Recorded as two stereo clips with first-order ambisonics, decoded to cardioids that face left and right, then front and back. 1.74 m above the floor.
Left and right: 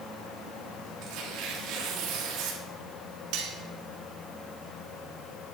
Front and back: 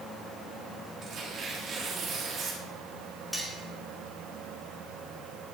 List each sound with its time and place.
1.0 s tearing paper: 120° right, 3.5 m
3.3 s cutlery clinking: 90° right, 2.5 m